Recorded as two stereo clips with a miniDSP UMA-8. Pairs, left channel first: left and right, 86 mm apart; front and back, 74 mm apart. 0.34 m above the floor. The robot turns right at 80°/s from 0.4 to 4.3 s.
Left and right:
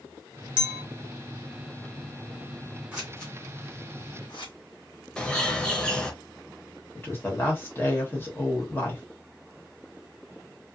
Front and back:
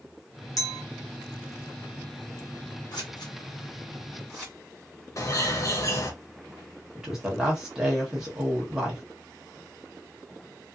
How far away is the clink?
About 1.2 m.